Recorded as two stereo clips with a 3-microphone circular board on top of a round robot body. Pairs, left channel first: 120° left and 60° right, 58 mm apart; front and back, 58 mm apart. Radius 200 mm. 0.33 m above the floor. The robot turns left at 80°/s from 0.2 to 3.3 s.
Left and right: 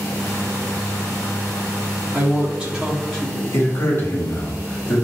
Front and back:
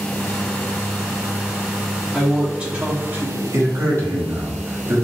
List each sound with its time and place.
2.1 s a woman speaking: 85° right, 1.6 m; by 3.4 s straight behind, 1.6 m
3.5 s a man speaking: 150° left, 1.8 m